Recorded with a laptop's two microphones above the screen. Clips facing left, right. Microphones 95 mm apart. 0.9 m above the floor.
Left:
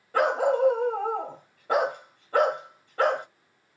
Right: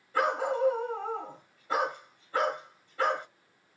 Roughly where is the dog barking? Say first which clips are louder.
Left 5 dB; left.